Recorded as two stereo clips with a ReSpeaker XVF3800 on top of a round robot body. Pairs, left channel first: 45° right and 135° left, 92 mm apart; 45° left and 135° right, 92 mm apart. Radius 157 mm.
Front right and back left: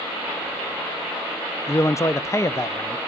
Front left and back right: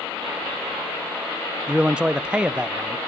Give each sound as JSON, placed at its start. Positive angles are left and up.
{"t": 1.7, "sound": "a man speaking", "azimuth_deg": -65, "distance_m": 0.7}